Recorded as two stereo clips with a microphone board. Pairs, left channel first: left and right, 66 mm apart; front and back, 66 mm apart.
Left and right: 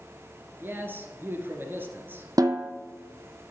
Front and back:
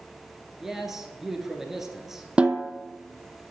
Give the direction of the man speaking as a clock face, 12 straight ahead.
3 o'clock.